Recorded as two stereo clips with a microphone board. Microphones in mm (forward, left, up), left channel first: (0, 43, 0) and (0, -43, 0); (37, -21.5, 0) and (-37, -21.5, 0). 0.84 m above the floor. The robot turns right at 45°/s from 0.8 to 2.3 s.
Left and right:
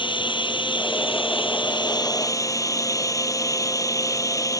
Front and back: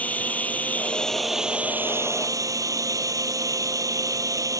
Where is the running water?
70° left; by 4.6 s 140° left.